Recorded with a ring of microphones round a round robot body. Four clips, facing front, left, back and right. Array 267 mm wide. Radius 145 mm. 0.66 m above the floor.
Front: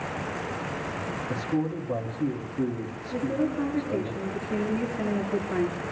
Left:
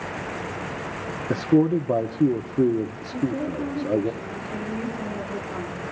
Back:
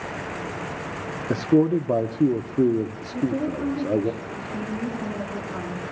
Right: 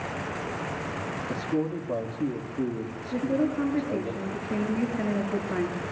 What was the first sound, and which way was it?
A man speaking, 135° left.